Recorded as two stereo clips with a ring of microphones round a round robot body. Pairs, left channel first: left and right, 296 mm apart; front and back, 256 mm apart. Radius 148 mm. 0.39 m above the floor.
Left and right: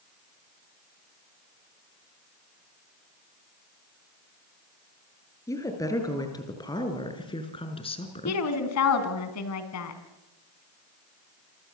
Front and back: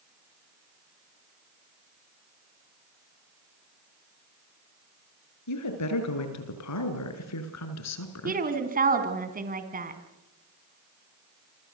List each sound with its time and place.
5.5 s a woman speaking: 10° left, 6.5 m; by 8.4 s 20° left, 4.5 m
8.2 s a woman speaking: 125° left, 4.5 m